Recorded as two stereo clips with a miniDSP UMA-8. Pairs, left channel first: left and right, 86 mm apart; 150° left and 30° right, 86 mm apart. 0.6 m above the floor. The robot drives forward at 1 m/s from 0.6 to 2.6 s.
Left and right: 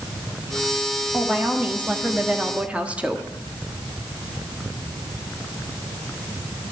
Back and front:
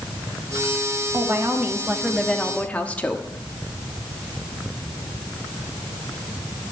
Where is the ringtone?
No ringtone in this recording.